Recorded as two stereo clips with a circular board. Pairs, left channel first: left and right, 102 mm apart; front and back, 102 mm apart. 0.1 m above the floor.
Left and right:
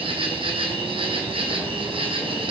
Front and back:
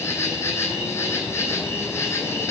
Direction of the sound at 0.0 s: 65° right.